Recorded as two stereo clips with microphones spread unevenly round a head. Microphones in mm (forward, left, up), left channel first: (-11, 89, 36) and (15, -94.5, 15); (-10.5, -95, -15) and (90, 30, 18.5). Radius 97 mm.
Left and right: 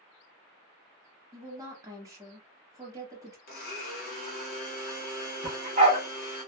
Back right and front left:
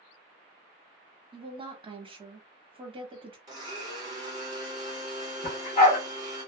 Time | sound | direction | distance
1.3 | a woman speaking | 10° right | 0.8 m
3.5 | a blender | 100° left | 0.9 m
5.4 | a dog barking | 110° right | 1.0 m